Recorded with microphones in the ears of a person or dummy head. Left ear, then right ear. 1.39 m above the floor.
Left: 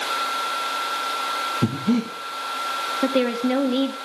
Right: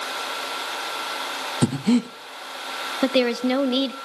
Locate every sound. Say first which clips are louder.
1.6 s breathing: right 1 dB; 55° right (ahead or behind), 0.7 m
3.0 s a woman speaking: right 2 dB; 30° right (ahead or behind), 0.8 m